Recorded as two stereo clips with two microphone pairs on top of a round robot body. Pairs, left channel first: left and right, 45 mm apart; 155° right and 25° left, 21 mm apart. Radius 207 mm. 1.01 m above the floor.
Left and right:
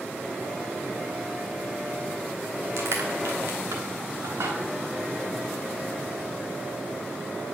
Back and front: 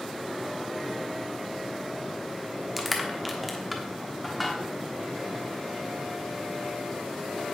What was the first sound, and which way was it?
Crushing, 65° right.